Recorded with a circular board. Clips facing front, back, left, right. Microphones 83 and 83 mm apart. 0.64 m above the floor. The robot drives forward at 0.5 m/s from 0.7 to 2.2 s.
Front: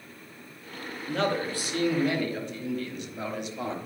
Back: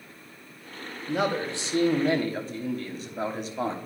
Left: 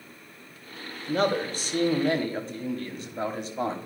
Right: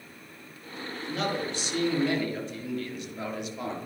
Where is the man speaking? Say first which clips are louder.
Back 1 dB, left 6 dB; 105° left, 1.0 m; by 3.8 s 140° left, 1.2 m.